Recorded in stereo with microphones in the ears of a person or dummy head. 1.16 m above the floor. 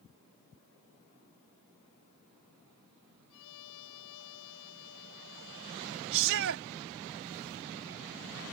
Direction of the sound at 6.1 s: 65° right (ahead or behind).